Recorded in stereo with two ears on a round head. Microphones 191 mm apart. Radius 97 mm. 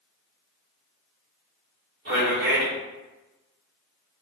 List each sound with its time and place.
2.0 s a man speaking: 45° right (ahead or behind), 1.1 m